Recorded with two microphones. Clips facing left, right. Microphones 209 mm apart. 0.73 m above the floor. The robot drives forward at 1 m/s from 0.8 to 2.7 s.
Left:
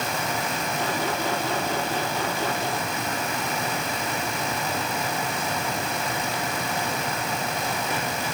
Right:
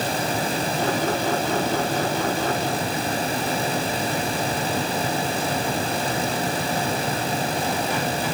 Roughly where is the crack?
I don't hear a crack.